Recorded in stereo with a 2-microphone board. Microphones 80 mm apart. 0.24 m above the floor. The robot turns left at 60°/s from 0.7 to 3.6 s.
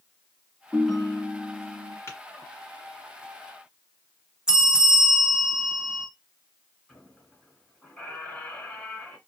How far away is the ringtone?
About 0.7 m.